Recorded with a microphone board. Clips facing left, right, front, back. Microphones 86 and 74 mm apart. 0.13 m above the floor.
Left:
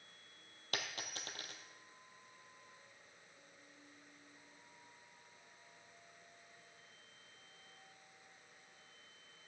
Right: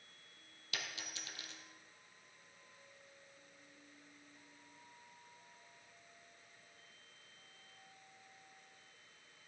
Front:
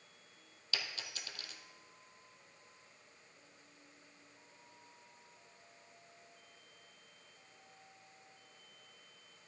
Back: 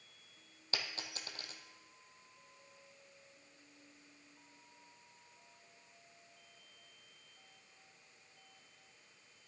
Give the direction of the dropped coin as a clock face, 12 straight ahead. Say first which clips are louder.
Left 3 dB, back 1 dB; 8 o'clock.